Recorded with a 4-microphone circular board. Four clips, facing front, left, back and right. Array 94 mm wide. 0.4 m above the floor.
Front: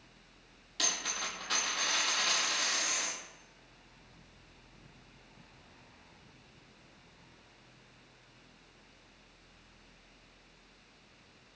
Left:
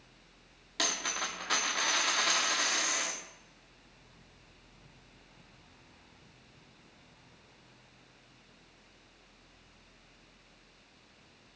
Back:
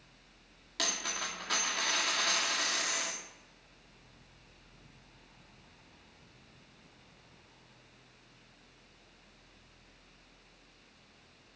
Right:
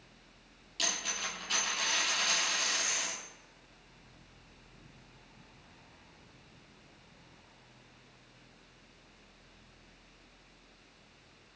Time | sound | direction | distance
0.8 | a dropped coin | 130° left | 4.5 m